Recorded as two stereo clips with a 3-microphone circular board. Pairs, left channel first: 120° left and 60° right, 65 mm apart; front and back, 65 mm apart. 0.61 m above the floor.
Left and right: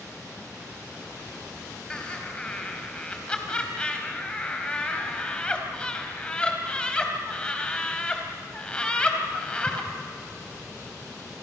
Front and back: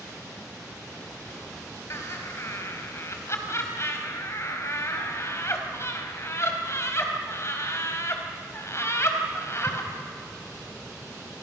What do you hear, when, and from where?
1.9 s laughter: 45° left, 3.5 m